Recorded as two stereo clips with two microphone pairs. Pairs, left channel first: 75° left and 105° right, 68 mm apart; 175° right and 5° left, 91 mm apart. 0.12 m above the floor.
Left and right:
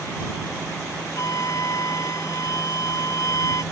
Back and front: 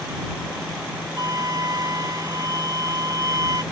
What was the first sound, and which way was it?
A flute, 50° left.